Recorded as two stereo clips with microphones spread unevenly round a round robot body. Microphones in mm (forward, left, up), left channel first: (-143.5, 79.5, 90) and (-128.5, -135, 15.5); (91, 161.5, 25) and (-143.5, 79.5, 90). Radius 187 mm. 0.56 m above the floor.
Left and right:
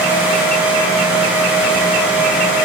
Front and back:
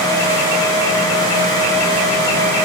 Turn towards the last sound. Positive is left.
No sound to turn to.